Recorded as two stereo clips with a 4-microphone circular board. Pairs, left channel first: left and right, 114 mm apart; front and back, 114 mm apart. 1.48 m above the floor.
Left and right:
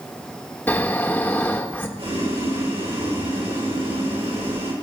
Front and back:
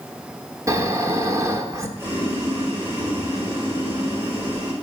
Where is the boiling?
110° right, 6 m.